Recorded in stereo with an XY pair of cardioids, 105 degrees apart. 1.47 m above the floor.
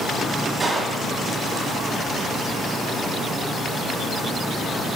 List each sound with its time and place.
0.6 s a gunshot: 30° right, 1.9 m